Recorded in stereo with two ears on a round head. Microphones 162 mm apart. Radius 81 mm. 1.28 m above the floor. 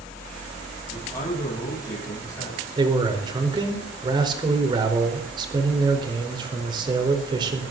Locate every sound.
0.9 s a man speaking: 20° left (ahead or behind), 9 m
2.8 s a man speaking: 25° right (ahead or behind), 4.5 m